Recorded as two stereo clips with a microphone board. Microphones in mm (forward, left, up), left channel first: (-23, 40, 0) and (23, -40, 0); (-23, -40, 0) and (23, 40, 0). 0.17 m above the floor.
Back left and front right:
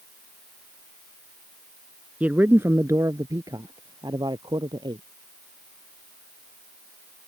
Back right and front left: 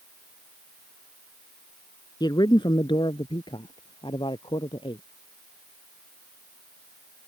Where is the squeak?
I don't hear a squeak.